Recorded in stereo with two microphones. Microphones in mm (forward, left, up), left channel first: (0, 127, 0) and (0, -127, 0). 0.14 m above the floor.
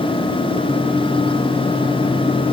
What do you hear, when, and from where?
Only background noise.